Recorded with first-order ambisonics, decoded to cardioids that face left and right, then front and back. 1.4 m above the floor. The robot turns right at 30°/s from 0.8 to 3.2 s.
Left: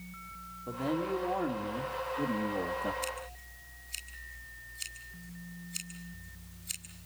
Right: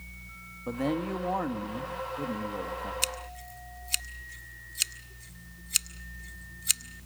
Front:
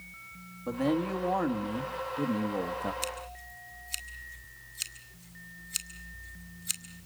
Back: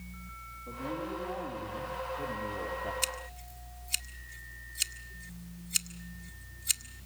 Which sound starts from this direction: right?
Scissors, at 3.0 s.